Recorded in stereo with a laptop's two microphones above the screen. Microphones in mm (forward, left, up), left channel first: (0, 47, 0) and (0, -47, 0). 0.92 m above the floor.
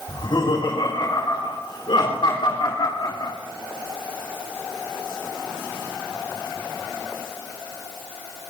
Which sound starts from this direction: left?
Laughter, at 0.1 s.